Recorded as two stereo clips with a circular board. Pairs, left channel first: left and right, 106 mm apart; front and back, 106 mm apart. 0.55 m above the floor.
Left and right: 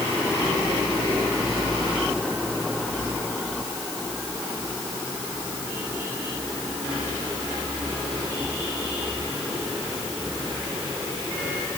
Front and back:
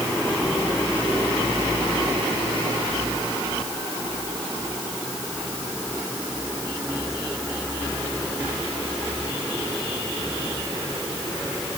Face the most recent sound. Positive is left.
No sound to turn to.